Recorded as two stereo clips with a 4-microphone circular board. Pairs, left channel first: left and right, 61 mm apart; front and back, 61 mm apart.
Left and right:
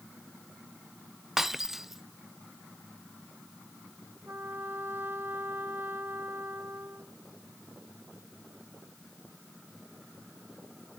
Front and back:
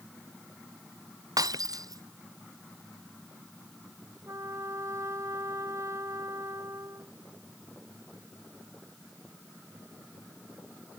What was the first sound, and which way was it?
Breaking glass, 175° right.